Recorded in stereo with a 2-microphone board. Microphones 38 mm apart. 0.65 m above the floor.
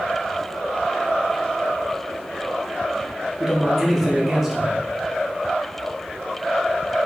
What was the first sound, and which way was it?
A man speaking, 10° right (ahead or behind).